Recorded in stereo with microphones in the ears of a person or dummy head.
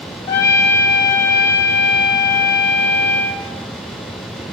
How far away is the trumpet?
About 1.0 m.